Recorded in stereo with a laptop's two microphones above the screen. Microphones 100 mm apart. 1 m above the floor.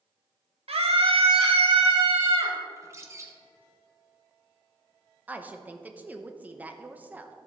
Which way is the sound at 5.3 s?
15° right (ahead or behind).